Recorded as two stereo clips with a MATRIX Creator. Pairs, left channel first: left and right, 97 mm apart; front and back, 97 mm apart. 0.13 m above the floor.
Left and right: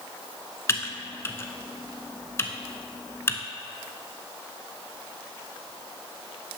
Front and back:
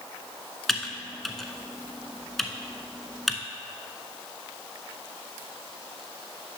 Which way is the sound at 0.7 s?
90° left.